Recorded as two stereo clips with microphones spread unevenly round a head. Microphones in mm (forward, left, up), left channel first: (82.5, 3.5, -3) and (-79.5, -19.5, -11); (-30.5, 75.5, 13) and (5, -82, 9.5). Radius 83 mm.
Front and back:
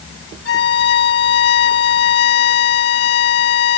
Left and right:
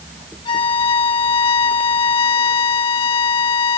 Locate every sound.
0.5 s a violin: 40° left